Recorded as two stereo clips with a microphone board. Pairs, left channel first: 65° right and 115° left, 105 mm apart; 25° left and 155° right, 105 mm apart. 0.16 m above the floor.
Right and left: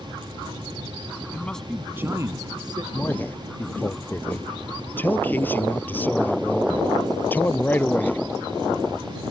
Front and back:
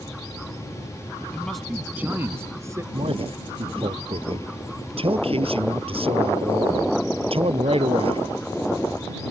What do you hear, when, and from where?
1.3 s a man speaking: 40° right; by 2.8 s 145° left
2.9 s a man speaking: 140° right